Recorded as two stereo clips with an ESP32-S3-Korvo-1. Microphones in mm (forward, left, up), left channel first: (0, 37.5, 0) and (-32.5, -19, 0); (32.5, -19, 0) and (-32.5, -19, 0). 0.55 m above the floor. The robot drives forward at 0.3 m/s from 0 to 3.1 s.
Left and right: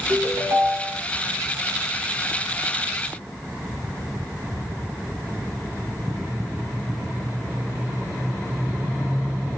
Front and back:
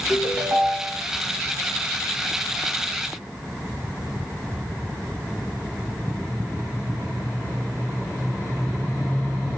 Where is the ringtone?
100° right, 1.7 m; by 1.0 s 105° right, 1.8 m.